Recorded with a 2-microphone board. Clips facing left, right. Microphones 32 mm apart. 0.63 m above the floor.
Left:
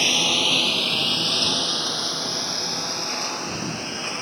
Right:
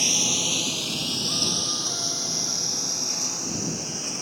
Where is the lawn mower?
35° left (ahead or behind); by 4.2 s 40° left (ahead or behind).